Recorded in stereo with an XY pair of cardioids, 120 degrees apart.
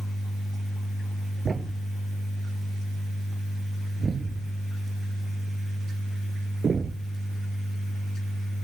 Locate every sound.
1.4 s a thud: 30° right